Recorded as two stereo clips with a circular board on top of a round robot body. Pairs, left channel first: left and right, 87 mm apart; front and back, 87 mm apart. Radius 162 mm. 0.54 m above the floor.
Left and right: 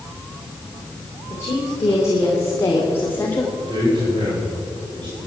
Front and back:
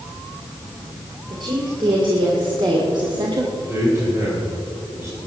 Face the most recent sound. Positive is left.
turn(degrees=-120)